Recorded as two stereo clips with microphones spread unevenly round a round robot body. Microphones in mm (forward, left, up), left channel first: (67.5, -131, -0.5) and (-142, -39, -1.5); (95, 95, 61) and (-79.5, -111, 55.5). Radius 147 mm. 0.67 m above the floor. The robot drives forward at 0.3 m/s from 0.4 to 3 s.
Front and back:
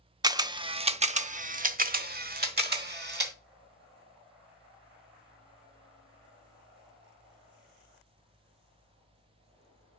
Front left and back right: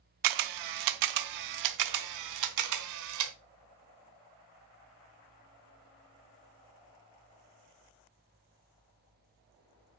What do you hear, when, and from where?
0.2 s a camera shutter: 130° right, 0.6 m; by 3.3 s 155° right, 1.3 m